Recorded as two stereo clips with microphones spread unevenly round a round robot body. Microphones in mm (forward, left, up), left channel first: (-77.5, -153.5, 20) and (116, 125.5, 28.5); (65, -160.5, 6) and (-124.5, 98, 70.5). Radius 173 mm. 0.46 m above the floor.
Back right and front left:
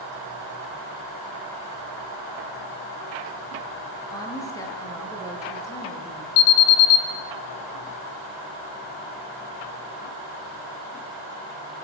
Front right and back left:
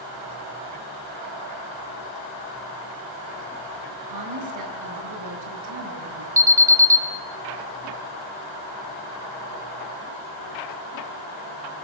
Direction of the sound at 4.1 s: 155° left.